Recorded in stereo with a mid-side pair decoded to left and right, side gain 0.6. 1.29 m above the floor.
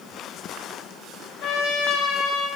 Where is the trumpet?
65° left, 6 m.